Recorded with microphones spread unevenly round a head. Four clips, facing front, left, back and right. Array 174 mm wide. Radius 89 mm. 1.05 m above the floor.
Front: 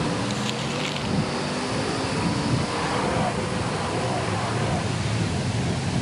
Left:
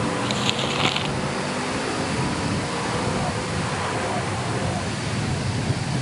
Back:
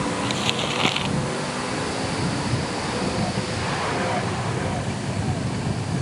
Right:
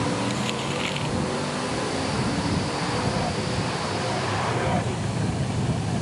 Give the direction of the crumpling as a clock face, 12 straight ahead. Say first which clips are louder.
Left 2 dB, back 2 dB; 7 o'clock.